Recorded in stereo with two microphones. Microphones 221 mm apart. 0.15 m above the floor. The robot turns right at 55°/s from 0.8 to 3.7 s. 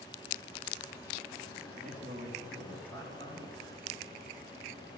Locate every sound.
1.7 s a man speaking: 55° right, 6 m; by 3.6 s 50° left, 6 m